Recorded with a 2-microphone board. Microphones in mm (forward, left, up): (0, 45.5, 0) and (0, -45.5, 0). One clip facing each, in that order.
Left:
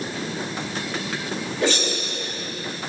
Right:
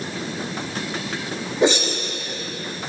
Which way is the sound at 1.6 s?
25° right (ahead or behind).